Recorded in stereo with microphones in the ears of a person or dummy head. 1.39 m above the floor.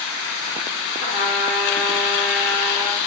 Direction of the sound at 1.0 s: 65° left (ahead or behind).